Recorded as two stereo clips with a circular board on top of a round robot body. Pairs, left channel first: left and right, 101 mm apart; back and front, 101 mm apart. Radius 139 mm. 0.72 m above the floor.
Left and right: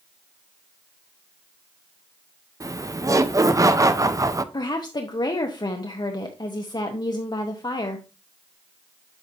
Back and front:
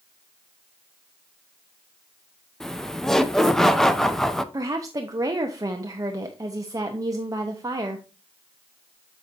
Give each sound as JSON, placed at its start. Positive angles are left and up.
{"t": 2.6, "sound": "laughter", "azimuth_deg": -95, "distance_m": 0.8}
{"t": 4.5, "sound": "a woman speaking", "azimuth_deg": 50, "distance_m": 0.9}